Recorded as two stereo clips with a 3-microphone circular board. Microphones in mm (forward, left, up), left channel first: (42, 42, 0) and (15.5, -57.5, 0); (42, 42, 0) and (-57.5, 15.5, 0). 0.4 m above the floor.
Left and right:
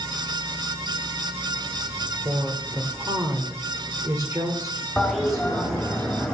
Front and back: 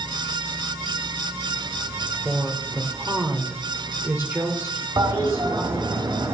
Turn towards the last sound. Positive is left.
turn(degrees=160)